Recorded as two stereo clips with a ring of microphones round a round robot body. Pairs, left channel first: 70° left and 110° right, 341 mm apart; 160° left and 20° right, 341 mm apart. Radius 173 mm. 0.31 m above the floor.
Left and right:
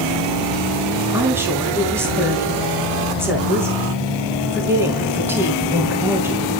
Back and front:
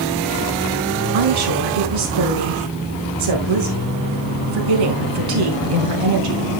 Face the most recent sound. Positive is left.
turn(degrees=-30)